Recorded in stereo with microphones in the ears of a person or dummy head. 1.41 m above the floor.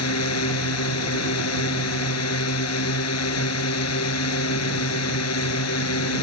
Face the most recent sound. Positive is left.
turn(degrees=85)